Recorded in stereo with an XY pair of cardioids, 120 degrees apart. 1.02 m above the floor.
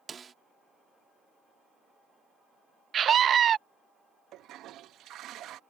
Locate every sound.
0.1 s a snare drum: 35° right
2.9 s a scream: 45° right
4.3 s a toilet flushing: 65° right